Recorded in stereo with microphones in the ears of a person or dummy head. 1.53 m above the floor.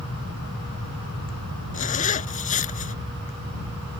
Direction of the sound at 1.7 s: 40° left (ahead or behind).